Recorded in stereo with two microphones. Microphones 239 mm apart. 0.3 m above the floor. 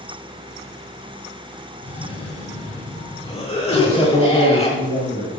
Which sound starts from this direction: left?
A cough, at 1.8 s.